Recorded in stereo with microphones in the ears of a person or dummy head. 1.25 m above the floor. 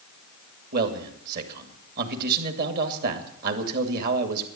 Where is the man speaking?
55° right (ahead or behind), 2 m.